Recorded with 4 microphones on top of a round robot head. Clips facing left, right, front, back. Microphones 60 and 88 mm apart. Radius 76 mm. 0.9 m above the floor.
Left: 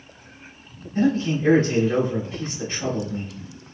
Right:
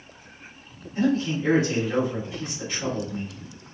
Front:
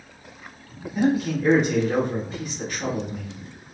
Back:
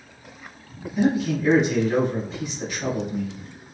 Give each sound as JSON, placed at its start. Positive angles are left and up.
{"t": 0.9, "sound": "a man speaking", "azimuth_deg": 45, "distance_m": 2.0}